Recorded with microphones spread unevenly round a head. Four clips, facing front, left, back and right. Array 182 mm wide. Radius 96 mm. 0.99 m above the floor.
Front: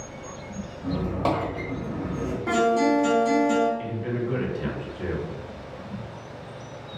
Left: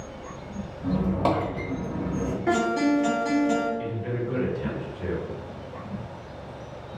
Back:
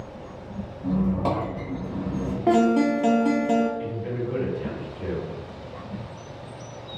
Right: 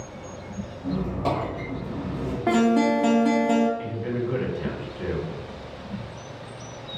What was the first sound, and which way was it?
A squeak, 45° left.